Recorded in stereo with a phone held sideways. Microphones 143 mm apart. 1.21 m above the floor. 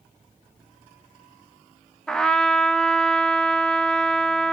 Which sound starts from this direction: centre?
A trumpet, at 2.1 s.